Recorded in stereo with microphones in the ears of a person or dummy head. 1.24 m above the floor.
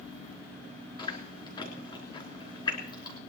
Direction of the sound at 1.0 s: 30° left (ahead or behind).